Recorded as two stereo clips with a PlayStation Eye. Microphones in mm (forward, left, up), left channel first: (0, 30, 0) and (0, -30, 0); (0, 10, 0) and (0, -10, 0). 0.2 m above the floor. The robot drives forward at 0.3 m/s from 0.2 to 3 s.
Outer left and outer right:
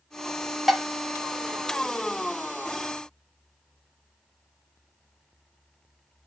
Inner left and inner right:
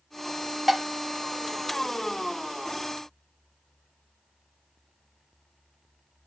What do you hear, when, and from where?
0.7 s dishes clattering: 5° right (ahead or behind), 0.7 m